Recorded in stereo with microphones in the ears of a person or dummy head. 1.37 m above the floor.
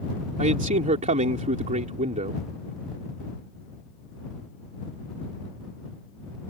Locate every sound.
0.4 s a man speaking: 40° right (ahead or behind)